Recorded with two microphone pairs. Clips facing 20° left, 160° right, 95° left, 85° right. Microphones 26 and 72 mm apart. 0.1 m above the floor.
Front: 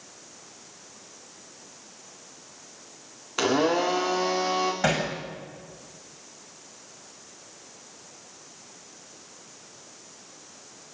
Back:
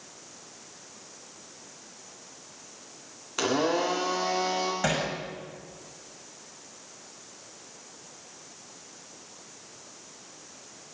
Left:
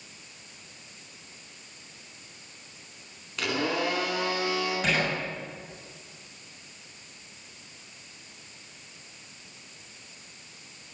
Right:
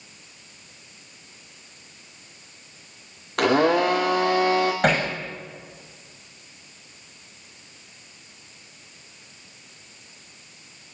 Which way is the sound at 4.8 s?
50° right.